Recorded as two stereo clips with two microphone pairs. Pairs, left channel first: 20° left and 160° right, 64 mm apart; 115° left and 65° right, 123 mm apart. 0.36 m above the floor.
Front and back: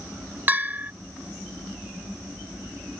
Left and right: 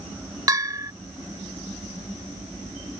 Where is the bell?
115° right.